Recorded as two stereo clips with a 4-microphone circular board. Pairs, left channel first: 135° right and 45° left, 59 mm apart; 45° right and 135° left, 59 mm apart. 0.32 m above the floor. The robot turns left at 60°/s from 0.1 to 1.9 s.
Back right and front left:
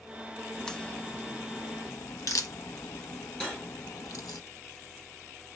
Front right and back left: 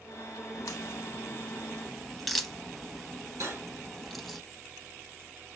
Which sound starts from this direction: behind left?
Cutlery clinking, at 3.4 s.